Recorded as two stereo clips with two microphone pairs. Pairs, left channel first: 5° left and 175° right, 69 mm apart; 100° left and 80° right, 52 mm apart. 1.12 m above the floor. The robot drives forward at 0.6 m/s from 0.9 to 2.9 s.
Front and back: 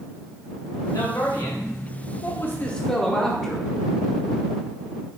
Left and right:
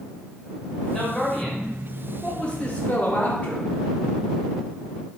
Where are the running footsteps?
I don't hear running footsteps.